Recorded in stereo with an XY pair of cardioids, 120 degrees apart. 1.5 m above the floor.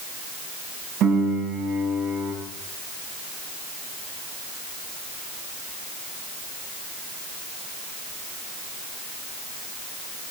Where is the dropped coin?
I don't hear a dropped coin.